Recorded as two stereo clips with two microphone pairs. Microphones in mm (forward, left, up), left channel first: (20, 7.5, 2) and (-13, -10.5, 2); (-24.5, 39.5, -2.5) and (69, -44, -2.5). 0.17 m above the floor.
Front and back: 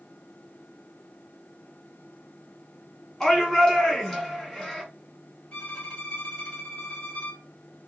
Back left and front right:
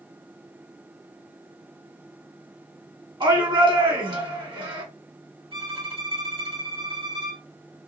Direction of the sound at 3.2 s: 35° right.